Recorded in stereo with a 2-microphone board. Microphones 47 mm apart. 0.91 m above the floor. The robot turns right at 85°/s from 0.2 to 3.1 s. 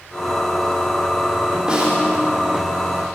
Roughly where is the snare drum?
Centre.